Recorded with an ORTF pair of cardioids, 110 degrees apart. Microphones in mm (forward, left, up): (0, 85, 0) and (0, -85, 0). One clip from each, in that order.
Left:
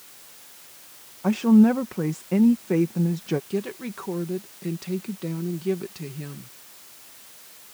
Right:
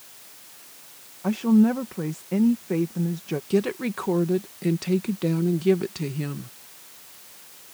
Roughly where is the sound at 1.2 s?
Ahead.